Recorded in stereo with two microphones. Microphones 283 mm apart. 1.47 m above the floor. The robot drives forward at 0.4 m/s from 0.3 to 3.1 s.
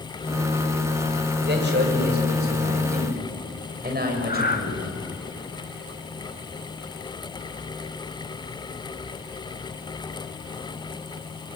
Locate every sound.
1.4 s a man speaking: 40° right (ahead or behind), 5 m; by 5.0 s 35° right (ahead or behind), 5.5 m
4.3 s breathing: 35° left (ahead or behind), 2.5 m